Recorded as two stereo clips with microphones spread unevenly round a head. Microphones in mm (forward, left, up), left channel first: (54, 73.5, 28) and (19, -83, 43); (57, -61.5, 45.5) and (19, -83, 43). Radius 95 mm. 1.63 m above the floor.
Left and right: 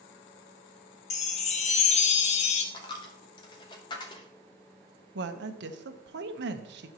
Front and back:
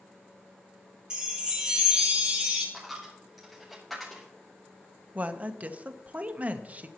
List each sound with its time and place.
1.1 s a chime: 135° left, 0.8 m
2.7 s a dropped coin: 105° left, 0.9 m
5.2 s a woman speaking: 90° right, 1.0 m